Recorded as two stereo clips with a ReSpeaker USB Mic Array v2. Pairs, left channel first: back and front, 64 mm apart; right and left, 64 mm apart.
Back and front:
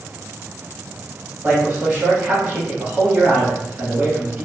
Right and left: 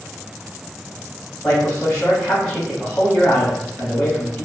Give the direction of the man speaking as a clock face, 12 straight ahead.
1 o'clock.